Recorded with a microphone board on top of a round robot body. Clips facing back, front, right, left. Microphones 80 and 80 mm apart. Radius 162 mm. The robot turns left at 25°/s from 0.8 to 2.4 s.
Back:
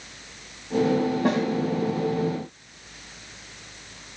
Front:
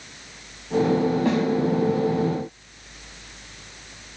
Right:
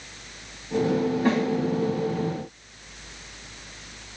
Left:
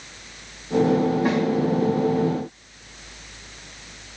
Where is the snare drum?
165° left, 6.5 m; by 1.4 s 160° left, 6.5 m.